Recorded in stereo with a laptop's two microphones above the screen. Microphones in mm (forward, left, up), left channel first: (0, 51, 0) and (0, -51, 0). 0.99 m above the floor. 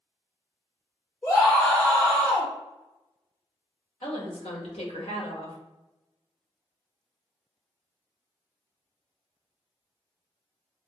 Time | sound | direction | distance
1.2 | a scream | 30° left (ahead or behind) | 1.1 m
4.0 | a woman speaking | 75° left (ahead or behind) | 1.0 m